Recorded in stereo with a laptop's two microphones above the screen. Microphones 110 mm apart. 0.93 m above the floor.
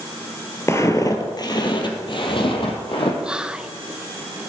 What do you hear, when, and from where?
0.7 s footsteps: 25° left (ahead or behind), 1.1 m; by 3.1 s 60° left (ahead or behind), 2 m
3.2 s whispering: 10° right (ahead or behind), 0.5 m